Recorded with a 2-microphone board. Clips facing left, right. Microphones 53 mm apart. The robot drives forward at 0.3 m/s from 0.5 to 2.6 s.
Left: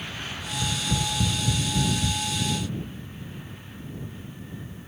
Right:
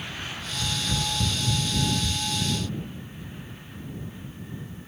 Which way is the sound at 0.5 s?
30° left (ahead or behind).